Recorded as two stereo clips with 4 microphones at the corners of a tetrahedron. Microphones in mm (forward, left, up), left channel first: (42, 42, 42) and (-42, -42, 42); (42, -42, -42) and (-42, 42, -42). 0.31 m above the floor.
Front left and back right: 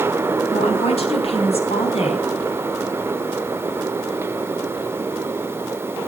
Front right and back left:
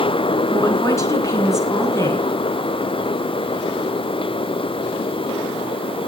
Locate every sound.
0.5 s a woman speaking: 15° left, 3.5 m